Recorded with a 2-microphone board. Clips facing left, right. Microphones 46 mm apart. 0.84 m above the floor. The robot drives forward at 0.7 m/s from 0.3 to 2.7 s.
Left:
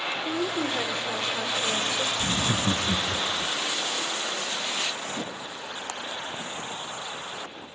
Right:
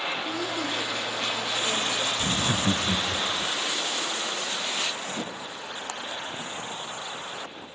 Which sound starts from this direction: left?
A woman speaking, at 0.2 s.